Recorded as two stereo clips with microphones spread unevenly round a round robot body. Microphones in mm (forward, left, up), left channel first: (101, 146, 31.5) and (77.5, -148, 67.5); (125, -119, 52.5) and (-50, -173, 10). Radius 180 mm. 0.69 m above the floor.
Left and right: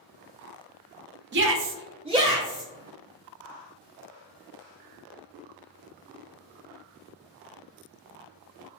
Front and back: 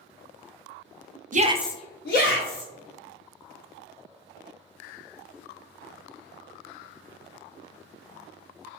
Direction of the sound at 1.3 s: 150° right.